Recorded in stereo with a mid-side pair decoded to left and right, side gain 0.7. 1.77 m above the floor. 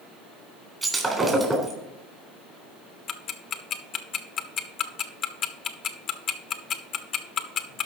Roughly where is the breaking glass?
Ahead.